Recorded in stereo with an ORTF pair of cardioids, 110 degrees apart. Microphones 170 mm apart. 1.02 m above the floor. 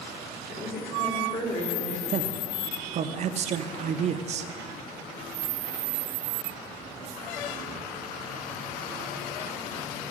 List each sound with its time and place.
0.5 s a woman speaking: 55° left, 3.5 m
2.1 s a man speaking: 45° right, 0.6 m